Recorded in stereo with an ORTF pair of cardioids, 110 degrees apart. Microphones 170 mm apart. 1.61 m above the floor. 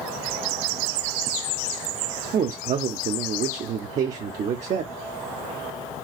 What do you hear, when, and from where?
2.3 s a man speaking: 45° right, 0.6 m